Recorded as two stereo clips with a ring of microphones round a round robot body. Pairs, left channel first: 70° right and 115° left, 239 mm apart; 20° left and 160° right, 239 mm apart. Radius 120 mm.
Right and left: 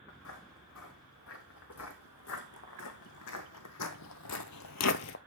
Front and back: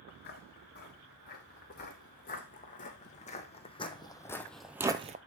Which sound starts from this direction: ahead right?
Footsteps, at 0.1 s.